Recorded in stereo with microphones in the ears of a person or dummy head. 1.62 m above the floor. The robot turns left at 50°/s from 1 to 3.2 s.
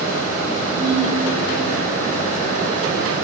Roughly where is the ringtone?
Centre.